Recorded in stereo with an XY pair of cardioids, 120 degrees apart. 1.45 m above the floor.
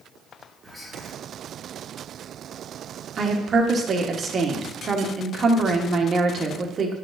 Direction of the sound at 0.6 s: 5° right.